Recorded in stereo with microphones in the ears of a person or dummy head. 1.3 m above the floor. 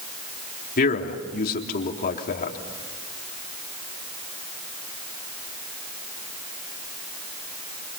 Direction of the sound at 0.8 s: 45° left (ahead or behind).